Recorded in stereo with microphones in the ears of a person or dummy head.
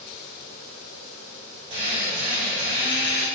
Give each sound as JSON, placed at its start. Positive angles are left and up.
{"t": 1.7, "sound": "a drill", "side_deg": -30, "distance_m": 4.0}